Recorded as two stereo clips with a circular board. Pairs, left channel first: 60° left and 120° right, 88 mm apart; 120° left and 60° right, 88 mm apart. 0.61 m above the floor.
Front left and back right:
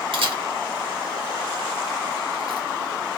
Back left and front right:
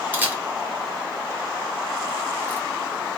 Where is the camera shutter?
130° right, 0.9 m.